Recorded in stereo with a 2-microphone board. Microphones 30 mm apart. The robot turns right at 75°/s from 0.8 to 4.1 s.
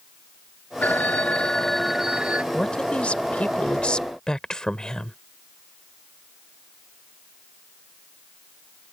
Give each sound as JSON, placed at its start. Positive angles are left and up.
{"t": 0.8, "sound": "a phone ringing", "azimuth_deg": 105}
{"t": 2.5, "sound": "a man speaking", "azimuth_deg": 30}